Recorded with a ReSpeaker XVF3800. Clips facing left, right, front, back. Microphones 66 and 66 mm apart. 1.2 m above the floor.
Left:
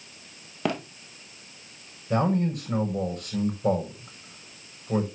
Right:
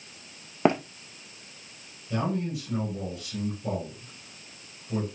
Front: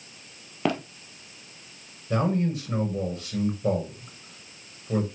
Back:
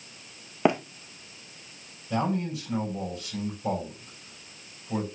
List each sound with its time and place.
0.7 s running footsteps: 125° right, 1.5 m
2.1 s a man speaking: 55° left, 7 m